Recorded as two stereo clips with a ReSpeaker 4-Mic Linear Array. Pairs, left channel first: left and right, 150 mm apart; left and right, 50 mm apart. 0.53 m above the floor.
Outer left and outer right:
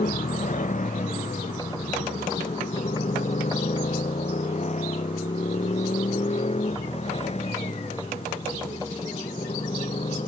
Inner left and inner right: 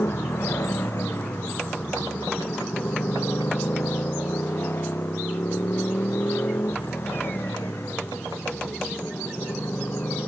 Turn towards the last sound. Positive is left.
turn(degrees=45)  # may be behind; listen again after turning